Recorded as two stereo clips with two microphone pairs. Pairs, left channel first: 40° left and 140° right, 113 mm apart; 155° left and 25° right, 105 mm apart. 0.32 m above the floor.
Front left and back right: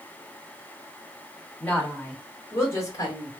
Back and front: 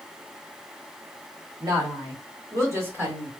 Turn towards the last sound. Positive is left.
turn(degrees=35)